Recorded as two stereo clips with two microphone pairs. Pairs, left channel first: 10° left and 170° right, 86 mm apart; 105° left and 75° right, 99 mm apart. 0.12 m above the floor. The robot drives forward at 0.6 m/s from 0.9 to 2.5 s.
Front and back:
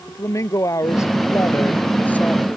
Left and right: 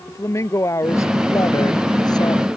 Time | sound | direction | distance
0.1 | a woman speaking | 55° left | ?